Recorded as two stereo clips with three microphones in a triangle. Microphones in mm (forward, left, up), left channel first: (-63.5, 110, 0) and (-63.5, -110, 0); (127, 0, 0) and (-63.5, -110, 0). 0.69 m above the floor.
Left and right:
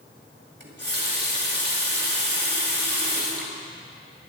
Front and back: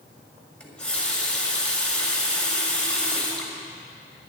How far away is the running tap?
About 2 m.